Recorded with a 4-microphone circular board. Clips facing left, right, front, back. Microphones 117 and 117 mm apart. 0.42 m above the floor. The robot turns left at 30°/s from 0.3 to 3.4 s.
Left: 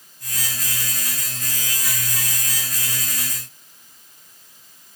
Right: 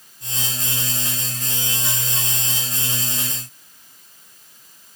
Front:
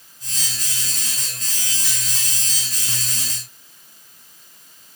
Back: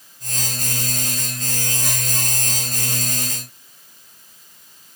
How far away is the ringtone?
I don't hear a ringtone.